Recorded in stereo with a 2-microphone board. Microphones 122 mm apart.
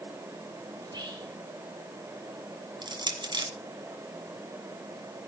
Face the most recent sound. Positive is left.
turn(degrees=-35)  # may be behind; listen again after turning